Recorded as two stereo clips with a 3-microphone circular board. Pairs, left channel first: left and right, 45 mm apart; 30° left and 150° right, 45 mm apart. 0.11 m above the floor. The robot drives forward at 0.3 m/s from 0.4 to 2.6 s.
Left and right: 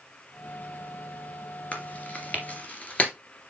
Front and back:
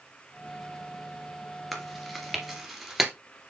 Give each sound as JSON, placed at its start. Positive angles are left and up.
{"t": 1.7, "sound": "chewing", "azimuth_deg": 120, "distance_m": 2.0}